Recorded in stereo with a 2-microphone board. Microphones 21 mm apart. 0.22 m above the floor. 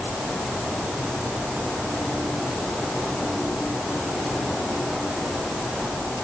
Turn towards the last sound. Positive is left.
No sound to turn to.